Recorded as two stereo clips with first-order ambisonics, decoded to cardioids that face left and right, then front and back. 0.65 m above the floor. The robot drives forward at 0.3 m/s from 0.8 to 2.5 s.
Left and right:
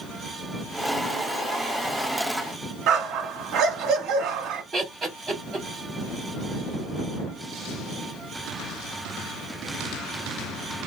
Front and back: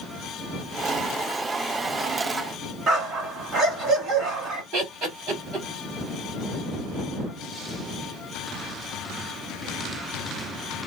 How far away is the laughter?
About 2.0 m.